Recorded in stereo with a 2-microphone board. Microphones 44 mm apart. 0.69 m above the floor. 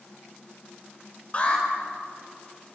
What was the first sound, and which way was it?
An alarm, 30° left (ahead or behind).